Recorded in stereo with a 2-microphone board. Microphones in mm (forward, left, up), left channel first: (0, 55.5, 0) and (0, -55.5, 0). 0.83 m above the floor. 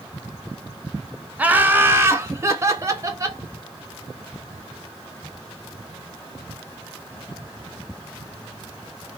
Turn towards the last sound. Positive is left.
turn(degrees=-30)  # may be behind; listen again after turning